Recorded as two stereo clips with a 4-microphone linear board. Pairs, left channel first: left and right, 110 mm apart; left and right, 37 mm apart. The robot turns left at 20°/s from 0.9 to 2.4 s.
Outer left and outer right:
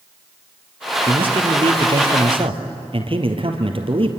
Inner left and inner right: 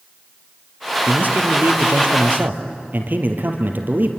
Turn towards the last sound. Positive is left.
turn(degrees=-55)  # may be behind; listen again after turning